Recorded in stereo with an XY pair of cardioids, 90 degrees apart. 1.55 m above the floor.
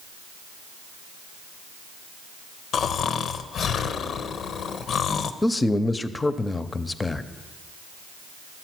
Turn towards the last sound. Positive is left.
turn(degrees=25)